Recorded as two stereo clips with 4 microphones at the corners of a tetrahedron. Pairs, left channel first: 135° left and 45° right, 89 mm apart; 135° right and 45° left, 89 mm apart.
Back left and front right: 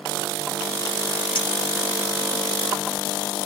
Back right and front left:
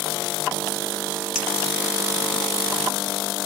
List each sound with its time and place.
1.4 s a clink: 125° left, 1.6 m